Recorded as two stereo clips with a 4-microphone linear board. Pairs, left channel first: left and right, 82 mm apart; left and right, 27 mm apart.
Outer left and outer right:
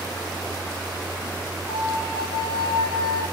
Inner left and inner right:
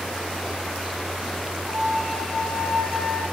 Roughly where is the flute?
Left.